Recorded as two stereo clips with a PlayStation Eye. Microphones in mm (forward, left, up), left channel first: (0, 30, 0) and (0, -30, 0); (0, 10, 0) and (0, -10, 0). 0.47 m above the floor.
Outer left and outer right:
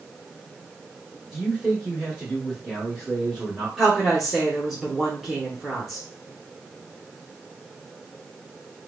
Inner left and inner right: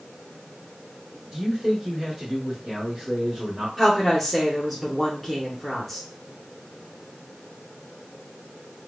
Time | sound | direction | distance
1.3 | a man speaking | centre (ahead or behind) | 1.4 m
3.8 | a woman speaking | 5° right (ahead or behind) | 1.0 m